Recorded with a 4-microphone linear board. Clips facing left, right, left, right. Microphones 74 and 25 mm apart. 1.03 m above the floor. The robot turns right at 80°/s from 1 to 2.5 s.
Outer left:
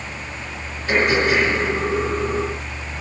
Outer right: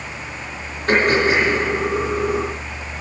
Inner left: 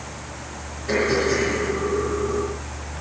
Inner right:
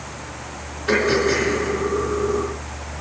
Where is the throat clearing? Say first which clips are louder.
Outer right 2 dB, inner right 2 dB; 55° right (ahead or behind), 3 m; by 3.0 s 65° left (ahead or behind), 3 m.